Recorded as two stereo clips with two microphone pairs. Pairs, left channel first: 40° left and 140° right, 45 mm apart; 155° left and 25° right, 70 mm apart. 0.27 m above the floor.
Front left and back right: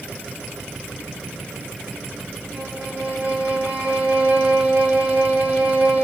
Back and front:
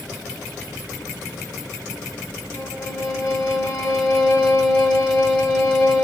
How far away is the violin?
About 3.5 m.